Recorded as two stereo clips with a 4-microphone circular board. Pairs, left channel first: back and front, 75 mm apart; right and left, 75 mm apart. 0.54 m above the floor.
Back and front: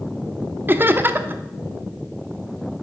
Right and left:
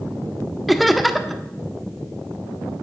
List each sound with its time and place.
0.7 s laughter: straight ahead, 1.0 m